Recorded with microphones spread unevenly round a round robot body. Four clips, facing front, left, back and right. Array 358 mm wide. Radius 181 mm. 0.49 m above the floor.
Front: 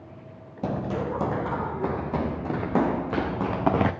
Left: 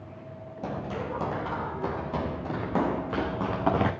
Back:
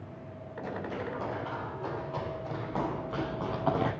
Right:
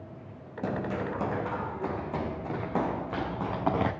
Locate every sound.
0.6 s running footsteps: 10° right, 2.0 m; by 3.9 s 10° left, 4.5 m